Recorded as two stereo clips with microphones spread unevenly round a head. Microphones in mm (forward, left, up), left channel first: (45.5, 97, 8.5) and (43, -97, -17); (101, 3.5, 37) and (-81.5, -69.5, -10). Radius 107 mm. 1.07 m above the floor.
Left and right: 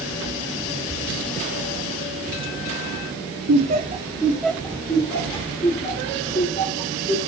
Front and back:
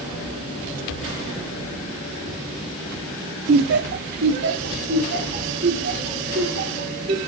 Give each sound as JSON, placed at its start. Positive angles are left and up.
{"t": 3.5, "sound": "laughter", "azimuth_deg": -125, "distance_m": 0.7}